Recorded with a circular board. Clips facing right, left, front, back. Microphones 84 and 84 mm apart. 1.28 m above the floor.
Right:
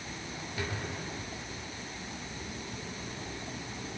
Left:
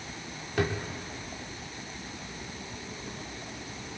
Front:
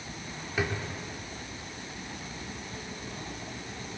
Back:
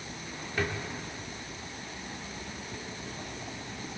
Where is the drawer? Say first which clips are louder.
Left 9 dB, front 1 dB; 80° left, 1.9 m.